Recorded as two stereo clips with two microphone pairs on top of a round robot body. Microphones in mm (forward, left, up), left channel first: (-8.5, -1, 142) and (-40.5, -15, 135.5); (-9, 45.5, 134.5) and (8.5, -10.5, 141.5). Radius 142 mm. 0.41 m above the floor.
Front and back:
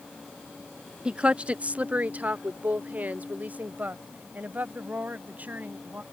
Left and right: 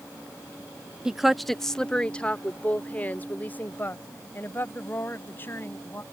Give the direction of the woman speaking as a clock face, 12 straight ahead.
5 o'clock.